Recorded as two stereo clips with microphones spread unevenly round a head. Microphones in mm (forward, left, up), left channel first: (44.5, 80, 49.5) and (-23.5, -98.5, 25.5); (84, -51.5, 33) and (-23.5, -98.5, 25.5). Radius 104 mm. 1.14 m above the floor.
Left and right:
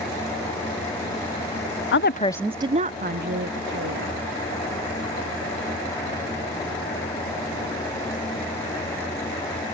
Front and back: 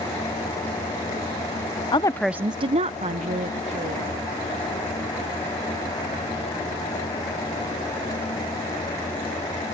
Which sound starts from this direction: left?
A woman speaking, at 1.9 s.